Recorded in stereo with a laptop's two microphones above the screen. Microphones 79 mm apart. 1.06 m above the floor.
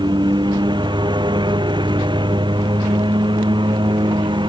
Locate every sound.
0.0 s a lawn mower: 70° right (ahead or behind); by 4.5 s 75° right (ahead or behind)